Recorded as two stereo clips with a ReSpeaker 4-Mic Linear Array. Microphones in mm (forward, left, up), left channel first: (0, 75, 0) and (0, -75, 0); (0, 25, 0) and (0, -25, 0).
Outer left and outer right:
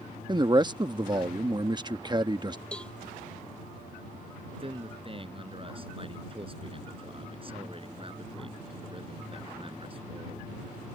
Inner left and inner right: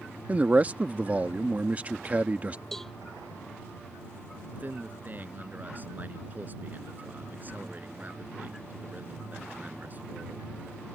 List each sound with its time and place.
0.3 s a man speaking: 30° right (ahead or behind)
2.7 s a cowbell: 5° left (ahead or behind)
4.5 s a man speaking: 40° right (ahead or behind)